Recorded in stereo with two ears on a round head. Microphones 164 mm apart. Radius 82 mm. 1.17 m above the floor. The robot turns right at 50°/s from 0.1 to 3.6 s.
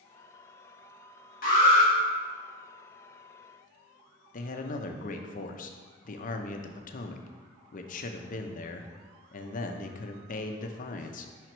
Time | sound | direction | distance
1.4 | an alarm | 55° left (ahead or behind) | 2 m
4.3 | a man speaking | 45° left (ahead or behind) | 0.6 m